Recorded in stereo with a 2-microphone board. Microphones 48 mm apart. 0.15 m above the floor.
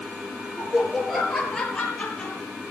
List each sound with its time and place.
0.6 s laughter: 10° right (ahead or behind), 3 m; by 2.4 s 15° left (ahead or behind), 4 m